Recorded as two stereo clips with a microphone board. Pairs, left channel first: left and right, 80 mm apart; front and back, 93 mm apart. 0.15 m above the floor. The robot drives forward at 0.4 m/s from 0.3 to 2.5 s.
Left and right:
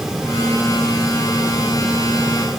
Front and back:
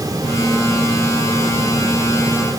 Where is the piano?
I don't hear a piano.